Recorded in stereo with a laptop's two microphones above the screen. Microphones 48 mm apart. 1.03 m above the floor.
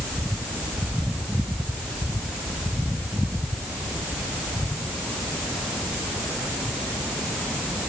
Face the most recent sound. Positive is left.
No sound to turn to.